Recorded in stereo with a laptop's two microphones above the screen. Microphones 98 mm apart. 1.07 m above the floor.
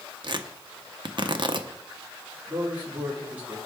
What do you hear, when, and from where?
0.2 s tearing paper: 55° right (ahead or behind), 0.6 m
2.5 s a man speaking: 15° right (ahead or behind), 1.7 m